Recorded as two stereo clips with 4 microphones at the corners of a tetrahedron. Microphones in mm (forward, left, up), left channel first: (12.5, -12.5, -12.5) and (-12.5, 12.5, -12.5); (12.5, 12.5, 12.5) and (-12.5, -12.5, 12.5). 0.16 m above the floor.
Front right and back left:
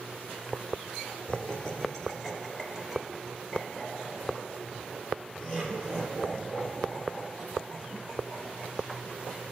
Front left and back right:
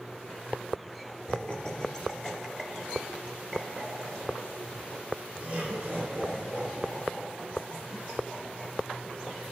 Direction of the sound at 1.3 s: 10° left.